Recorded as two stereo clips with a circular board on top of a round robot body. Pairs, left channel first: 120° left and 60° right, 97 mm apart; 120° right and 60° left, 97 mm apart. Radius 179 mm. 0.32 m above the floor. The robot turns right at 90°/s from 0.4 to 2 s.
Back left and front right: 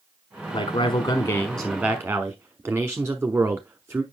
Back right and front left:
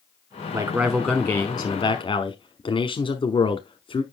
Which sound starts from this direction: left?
A man speaking, at 0.5 s.